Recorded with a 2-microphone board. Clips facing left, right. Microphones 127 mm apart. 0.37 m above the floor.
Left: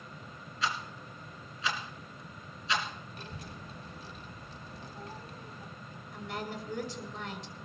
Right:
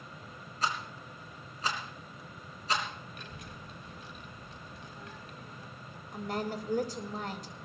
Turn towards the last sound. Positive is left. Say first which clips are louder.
# right 4 dB
turn(degrees=-45)  # may be behind; listen again after turning